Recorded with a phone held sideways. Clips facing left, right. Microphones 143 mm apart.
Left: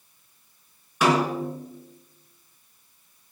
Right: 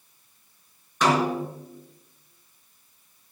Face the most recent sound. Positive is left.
turn(degrees=5)  # may be behind; listen again after turning